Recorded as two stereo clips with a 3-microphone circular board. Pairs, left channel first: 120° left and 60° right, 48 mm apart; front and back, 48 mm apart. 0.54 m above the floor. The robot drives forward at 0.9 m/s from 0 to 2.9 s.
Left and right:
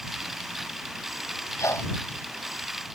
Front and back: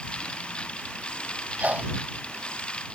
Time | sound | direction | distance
1.6 | a sneeze | 120° left | ?